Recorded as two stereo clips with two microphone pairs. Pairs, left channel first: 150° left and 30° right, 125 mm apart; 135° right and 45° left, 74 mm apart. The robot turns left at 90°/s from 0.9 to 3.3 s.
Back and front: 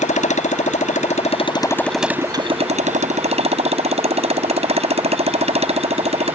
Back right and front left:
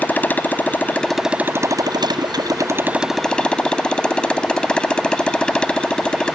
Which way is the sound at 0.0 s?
155° left.